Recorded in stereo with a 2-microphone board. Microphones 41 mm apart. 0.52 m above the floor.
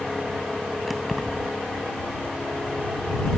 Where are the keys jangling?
Centre (ahead or behind).